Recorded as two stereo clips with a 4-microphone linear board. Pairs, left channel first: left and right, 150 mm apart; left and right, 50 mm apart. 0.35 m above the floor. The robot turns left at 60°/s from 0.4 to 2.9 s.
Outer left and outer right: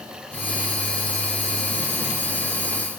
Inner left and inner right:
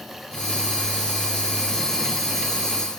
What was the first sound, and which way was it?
Only background noise.